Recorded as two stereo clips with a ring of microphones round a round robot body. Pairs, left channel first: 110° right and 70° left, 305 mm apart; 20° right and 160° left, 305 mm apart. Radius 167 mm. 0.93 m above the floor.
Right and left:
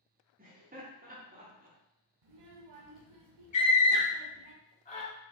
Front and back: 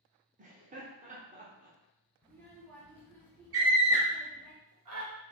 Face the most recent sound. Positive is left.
turn(degrees=180)